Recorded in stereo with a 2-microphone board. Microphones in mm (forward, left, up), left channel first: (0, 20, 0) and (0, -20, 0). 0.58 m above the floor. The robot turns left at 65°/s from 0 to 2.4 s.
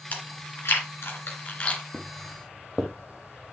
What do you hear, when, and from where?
0.1 s chewing: 45° left (ahead or behind), 3 m; by 1.8 s 25° left (ahead or behind), 3 m
1.9 s footsteps: 10° right (ahead or behind), 2.5 m; by 3.5 s 5° right (ahead or behind), 2.5 m